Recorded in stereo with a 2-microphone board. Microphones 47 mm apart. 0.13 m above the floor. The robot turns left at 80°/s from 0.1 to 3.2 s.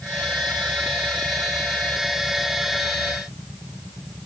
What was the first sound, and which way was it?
Only background noise.